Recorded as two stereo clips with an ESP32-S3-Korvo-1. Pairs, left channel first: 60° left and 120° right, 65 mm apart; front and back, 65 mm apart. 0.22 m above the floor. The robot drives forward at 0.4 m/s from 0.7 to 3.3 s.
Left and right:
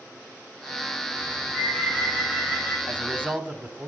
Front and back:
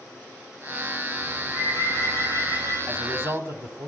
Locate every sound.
1.3 s a bird: 170° left, 9.5 m
2.9 s a man speaking: 160° right, 1.2 m; by 3.9 s 165° right, 1.3 m